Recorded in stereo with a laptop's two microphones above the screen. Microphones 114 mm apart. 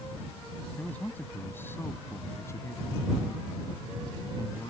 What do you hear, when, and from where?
0.8 s a man speaking: 10° left (ahead or behind); by 4.7 s 35° left (ahead or behind)